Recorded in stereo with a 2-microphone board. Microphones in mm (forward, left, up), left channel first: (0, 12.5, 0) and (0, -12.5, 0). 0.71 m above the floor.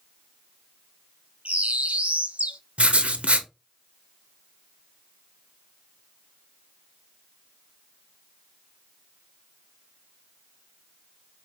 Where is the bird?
60° right (ahead or behind), 0.6 m.